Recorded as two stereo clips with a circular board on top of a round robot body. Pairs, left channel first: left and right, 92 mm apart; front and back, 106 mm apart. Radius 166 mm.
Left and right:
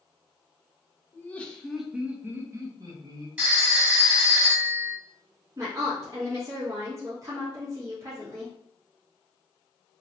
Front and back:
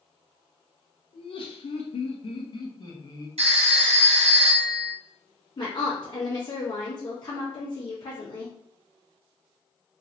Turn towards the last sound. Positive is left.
turn(degrees=-40)